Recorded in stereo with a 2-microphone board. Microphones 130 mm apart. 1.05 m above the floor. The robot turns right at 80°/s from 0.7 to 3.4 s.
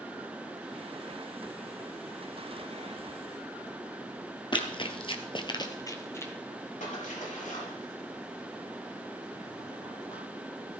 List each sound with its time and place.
4.5 s running footsteps: 40° left (ahead or behind), 1.6 m; by 6.3 s 20° left (ahead or behind), 2.0 m
6.8 s a splash: 80° left, 5 m